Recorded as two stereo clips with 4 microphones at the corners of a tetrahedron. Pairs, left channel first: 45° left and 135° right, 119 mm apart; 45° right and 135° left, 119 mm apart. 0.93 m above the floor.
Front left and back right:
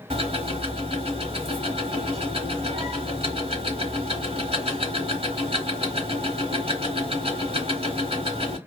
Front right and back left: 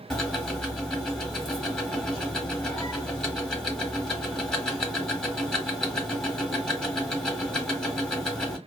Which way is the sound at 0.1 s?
130° right.